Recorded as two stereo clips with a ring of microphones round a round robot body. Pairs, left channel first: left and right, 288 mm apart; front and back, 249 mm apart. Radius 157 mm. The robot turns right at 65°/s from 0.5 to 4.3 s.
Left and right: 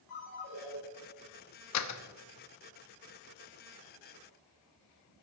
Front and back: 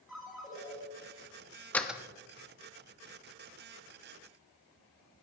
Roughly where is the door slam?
Left.